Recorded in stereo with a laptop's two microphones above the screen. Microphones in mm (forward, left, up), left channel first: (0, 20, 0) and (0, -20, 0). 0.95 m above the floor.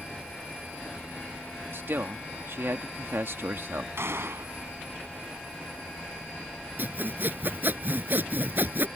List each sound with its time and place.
1.7 s a man speaking: 65° right (ahead or behind)
4.0 s a gunshot: 75° right (ahead or behind)
6.8 s sawing: 50° right (ahead or behind)